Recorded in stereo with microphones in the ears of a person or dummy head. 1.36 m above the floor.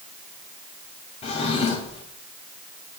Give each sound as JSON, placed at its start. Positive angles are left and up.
{"t": 1.2, "sound": "a drawer", "side_deg": 45, "distance_m": 2.5}